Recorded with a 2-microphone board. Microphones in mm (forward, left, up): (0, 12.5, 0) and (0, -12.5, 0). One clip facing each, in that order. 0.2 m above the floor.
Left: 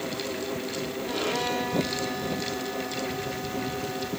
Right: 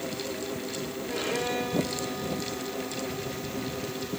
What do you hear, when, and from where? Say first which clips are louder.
1.1 s a violin: left 2 dB; 70° left (ahead or behind), 7 m